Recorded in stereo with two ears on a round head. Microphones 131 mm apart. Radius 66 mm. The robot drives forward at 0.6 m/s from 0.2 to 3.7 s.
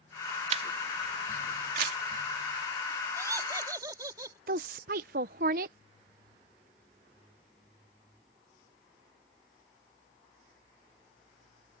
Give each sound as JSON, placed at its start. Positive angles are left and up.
{"t": 0.5, "sound": "a camera shutter", "side_deg": -50}
{"t": 3.2, "sound": "laughter", "side_deg": -20}
{"t": 4.5, "sound": "a woman speaking", "side_deg": -65}